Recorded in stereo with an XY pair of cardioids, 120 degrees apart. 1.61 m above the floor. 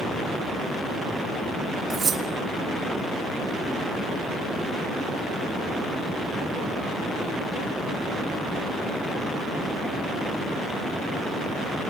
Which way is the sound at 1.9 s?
40° right.